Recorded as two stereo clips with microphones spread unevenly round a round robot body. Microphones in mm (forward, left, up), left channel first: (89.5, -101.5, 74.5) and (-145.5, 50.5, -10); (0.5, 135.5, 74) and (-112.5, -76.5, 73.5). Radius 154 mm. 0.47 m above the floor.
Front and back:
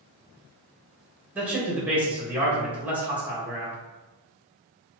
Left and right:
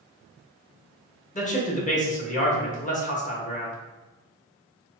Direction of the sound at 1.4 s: 95° left.